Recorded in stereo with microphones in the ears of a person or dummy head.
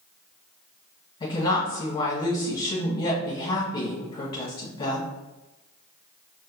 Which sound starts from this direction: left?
A woman speaking, at 1.2 s.